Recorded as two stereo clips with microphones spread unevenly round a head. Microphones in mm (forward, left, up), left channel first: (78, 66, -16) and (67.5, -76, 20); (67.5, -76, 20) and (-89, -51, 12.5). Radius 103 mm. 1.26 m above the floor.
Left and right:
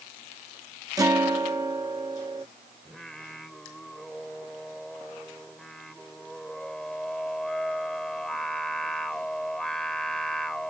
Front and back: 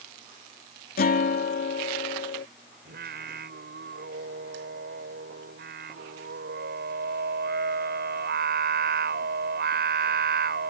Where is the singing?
175° left.